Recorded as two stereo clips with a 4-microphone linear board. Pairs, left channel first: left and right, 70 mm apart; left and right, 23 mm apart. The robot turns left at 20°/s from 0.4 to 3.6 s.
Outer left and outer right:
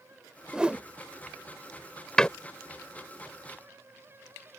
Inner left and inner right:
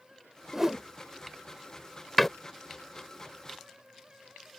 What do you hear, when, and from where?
0.5 s a whoosh: 10° right (ahead or behind); by 0.8 s 20° right (ahead or behind)
2.2 s a door slam: 15° left (ahead or behind); by 2.3 s 10° left (ahead or behind)